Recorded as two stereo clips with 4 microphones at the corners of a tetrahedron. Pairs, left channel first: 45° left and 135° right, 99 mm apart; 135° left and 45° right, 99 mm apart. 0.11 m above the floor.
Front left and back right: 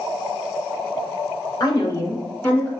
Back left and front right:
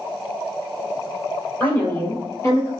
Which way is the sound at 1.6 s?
75° left.